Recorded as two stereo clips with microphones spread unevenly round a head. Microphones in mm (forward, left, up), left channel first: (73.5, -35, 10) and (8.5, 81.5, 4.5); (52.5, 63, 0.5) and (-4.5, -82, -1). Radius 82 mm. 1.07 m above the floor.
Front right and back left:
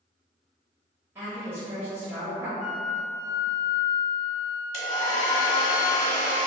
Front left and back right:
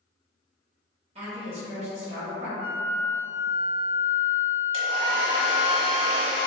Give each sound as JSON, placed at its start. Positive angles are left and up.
{"t": 1.1, "sound": "a woman speaking", "azimuth_deg": -165, "distance_m": 1.0}
{"t": 2.6, "sound": "a flute", "azimuth_deg": 85, "distance_m": 1.9}
{"t": 4.7, "sound": "a hair dryer", "azimuth_deg": -80, "distance_m": 1.2}